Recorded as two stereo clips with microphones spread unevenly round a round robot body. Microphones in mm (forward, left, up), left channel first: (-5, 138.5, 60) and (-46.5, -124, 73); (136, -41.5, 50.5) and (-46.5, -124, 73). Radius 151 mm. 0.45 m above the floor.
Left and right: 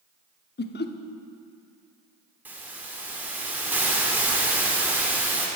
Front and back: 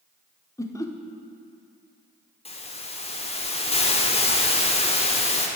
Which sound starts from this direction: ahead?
A hiss, at 2.5 s.